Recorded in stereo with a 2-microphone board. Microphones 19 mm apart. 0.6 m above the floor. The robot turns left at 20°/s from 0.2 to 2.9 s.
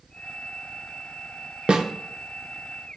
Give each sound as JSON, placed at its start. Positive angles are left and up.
{"t": 1.7, "sound": "a snare drum", "side_deg": -45, "distance_m": 0.6}